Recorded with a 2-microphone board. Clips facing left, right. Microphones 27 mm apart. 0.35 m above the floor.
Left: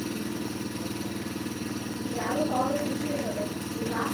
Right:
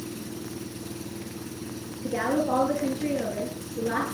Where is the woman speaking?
70° right (ahead or behind), 6.5 m.